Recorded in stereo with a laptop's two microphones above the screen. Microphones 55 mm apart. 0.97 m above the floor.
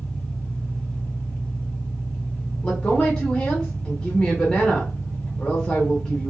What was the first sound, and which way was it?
An engine running, 35° left (ahead or behind).